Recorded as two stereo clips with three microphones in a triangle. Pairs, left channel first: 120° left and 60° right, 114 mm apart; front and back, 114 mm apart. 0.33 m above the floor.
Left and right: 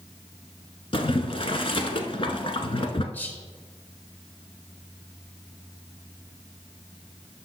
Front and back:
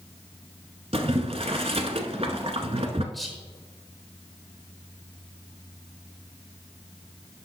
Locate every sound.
0.9 s boiling: 155° left, 0.9 m
3.1 s whispering: 90° left, 0.8 m